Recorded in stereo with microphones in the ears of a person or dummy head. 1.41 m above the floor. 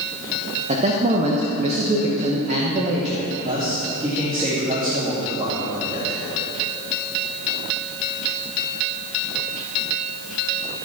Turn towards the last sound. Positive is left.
turn(degrees=-30)  # may be behind; listen again after turning